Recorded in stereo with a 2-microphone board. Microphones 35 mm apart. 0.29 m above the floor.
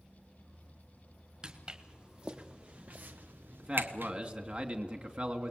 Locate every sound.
1.4 s footsteps: 20° right (ahead or behind), 3.5 m; by 4.1 s 80° right, 1.6 m
3.6 s a man speaking: 35° right (ahead or behind), 2.5 m